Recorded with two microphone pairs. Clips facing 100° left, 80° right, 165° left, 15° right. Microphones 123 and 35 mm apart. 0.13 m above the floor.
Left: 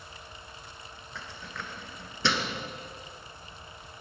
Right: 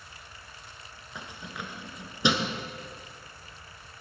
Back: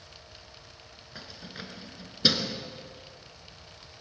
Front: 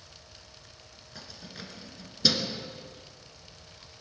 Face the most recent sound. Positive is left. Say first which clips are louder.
# right 2 dB, back 2 dB
turn(degrees=-140)